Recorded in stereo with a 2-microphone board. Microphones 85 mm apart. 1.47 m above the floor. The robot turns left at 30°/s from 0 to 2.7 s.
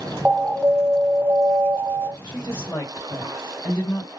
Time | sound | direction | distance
0.2 | an alarm | 5° right | 1.1 m
2.2 | a woman speaking | 50° left (ahead or behind) | 2 m